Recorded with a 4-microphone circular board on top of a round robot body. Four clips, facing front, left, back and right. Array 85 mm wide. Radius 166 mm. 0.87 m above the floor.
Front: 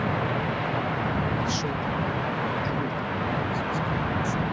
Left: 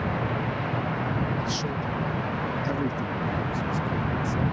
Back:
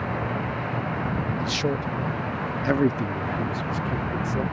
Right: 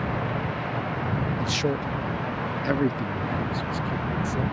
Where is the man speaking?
125° right; by 4.4 s 170° right.